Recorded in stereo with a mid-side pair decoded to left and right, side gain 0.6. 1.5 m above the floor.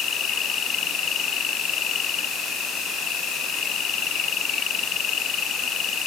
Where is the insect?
50° left.